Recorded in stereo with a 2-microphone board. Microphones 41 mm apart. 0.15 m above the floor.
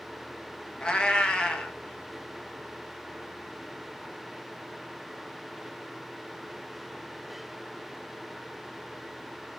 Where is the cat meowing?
25° left (ahead or behind), 0.6 m.